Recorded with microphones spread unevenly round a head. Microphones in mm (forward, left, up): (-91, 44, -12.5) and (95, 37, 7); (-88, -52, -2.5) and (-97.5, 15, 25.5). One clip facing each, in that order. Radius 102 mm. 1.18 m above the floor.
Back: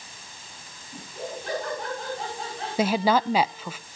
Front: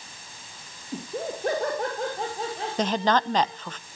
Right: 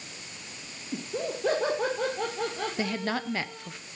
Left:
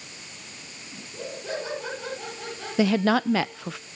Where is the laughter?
50° right, 3 m; by 3.7 s 70° right, 5 m.